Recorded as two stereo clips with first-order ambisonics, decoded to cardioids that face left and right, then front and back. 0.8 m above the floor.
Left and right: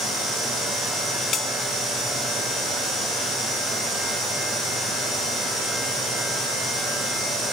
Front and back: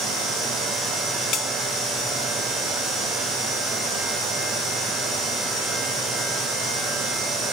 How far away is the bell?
About 0.9 m.